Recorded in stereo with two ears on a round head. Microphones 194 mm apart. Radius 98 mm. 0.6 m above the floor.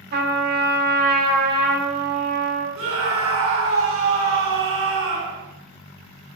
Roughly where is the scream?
Right.